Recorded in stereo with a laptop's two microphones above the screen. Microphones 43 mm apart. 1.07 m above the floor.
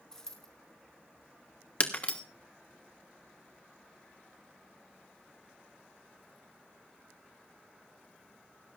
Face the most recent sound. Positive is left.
turn(degrees=35)  # may be behind; listen again after turning